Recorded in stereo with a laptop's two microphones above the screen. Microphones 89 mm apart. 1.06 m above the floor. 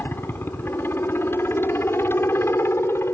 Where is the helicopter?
25° left (ahead or behind).